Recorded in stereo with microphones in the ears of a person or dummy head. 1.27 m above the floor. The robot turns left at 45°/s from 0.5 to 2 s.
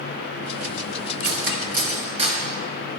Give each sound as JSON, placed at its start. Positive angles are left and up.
{"t": 1.2, "sound": "cutlery clinking", "side_deg": -65, "distance_m": 1.0}